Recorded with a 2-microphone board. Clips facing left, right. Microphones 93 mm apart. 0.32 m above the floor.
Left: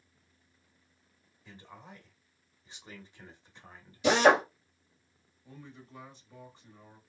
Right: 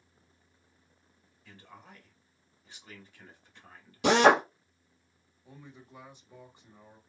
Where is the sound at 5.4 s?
15° right (ahead or behind), 1.0 m.